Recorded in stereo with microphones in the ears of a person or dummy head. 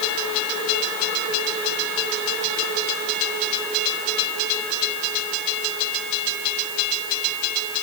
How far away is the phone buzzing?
I don't hear a phone buzzing.